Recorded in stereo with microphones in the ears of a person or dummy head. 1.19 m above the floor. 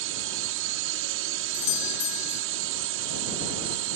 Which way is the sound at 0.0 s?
75° right (ahead or behind).